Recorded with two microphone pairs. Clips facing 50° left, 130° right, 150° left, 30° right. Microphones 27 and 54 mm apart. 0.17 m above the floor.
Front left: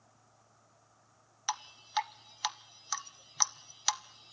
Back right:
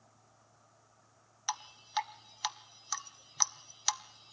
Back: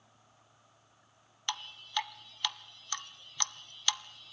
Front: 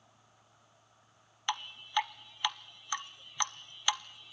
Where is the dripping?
10° right, 0.5 m.